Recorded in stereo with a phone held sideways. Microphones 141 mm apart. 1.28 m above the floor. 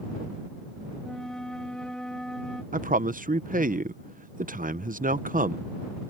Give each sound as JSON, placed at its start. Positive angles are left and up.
{"t": 1.0, "sound": "a flute", "side_deg": 5}
{"t": 2.7, "sound": "a man speaking", "side_deg": -75}